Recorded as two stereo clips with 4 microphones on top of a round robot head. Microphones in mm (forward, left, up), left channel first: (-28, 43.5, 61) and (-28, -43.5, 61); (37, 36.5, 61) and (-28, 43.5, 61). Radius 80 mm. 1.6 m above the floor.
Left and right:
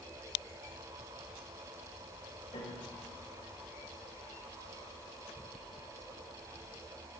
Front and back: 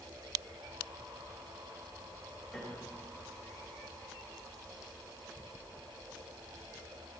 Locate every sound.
2.5 s a piano: 85° left, 6 m